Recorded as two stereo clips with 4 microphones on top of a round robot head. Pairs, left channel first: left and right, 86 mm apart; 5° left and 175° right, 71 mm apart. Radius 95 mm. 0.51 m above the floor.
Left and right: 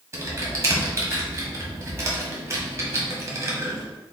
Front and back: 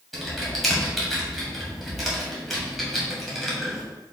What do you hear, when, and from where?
0.1 s typing on a keyboard: 90° right, 1.4 m